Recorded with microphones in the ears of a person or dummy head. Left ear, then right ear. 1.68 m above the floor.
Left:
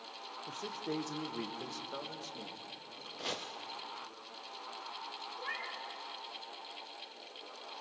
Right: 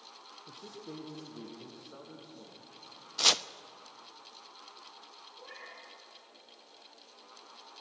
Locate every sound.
0.5 s a man speaking: 35° left (ahead or behind), 1.3 m; by 3.1 s 85° left, 3.5 m
3.2 s chopping: 50° right (ahead or behind), 0.7 m
5.4 s a cat meowing: 60° left (ahead or behind), 3 m